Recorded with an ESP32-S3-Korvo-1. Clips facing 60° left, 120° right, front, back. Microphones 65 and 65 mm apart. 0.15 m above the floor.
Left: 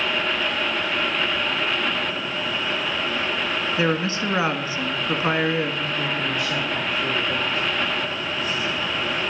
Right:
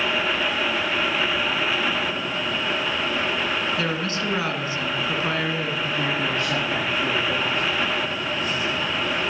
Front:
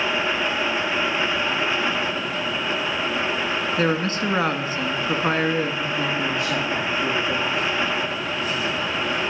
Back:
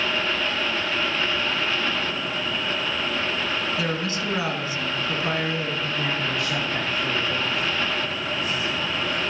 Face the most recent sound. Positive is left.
turn(degrees=-65)